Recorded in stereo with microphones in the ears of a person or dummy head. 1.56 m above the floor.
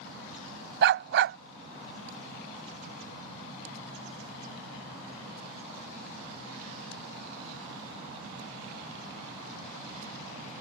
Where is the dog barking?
60° right (ahead or behind).